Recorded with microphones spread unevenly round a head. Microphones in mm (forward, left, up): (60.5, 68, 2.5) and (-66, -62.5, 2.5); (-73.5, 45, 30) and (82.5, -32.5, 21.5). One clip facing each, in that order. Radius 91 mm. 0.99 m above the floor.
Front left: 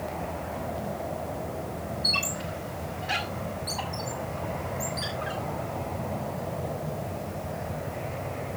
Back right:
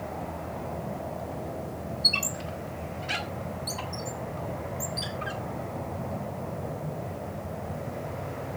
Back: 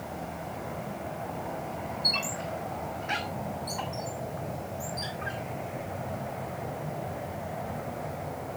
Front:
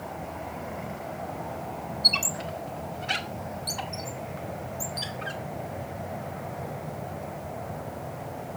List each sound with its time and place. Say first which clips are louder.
2.0 s a squeak: front left 1 dB, even; 75° right, 2 m